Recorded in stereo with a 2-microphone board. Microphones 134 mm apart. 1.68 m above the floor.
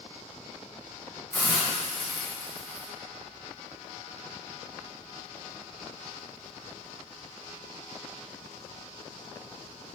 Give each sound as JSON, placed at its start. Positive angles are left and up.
{"t": 1.3, "sound": "a hiss", "side_deg": 10, "distance_m": 2.5}